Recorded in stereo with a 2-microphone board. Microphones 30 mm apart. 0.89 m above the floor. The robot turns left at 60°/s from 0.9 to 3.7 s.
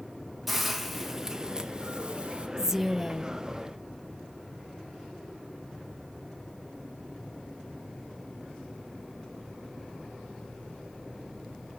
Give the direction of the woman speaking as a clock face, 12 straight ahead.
5 o'clock.